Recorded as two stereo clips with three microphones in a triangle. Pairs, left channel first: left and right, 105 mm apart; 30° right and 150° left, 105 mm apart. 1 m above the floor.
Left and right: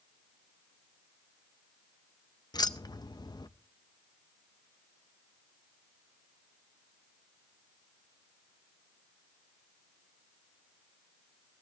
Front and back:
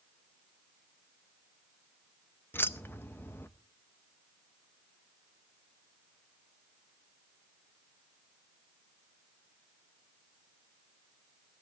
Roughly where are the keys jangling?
Ahead left.